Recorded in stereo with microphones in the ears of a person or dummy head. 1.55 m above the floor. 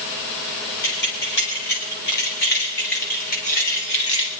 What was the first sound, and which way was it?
Keys jangling, 70° left (ahead or behind).